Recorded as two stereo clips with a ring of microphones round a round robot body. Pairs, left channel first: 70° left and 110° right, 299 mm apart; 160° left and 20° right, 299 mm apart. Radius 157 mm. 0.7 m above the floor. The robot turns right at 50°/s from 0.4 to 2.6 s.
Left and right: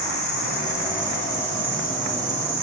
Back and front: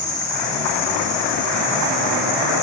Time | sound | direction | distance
0.0 | an insect | 100° left | 5 m